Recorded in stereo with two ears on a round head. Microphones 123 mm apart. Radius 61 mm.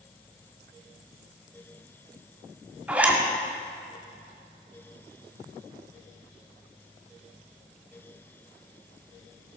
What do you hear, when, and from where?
2.9 s a zipper: 10° right (ahead or behind), 1.9 m